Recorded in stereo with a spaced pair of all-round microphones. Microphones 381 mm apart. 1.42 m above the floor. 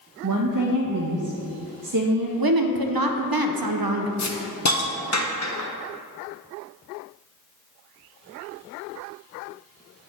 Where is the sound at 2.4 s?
65° right (ahead or behind), 0.6 m.